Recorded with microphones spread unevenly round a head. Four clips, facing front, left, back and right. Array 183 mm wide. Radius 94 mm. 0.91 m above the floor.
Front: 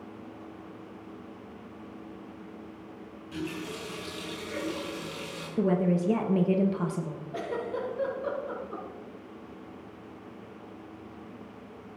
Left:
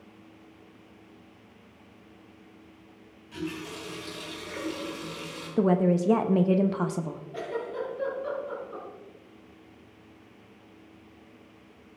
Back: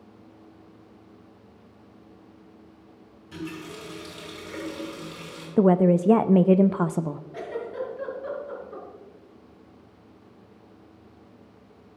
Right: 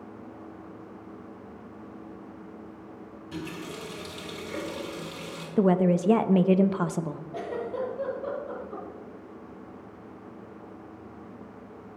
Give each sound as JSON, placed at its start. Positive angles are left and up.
{"t": 3.3, "sound": "a running tap", "azimuth_deg": -110, "distance_m": 6.5}
{"t": 5.6, "sound": "a woman speaking", "azimuth_deg": 180, "distance_m": 0.6}
{"t": 7.3, "sound": "a giggle", "azimuth_deg": -30, "distance_m": 5.5}